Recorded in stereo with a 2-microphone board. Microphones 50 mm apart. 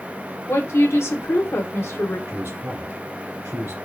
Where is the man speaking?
50° right (ahead or behind), 2.5 m.